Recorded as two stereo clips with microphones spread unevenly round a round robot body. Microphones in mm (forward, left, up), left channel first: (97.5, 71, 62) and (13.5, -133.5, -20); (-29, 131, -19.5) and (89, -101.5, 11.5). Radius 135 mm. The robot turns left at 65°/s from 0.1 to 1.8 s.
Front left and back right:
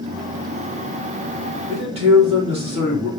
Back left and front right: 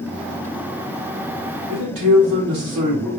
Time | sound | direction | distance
1.7 | a man speaking | 50° right | 2.5 m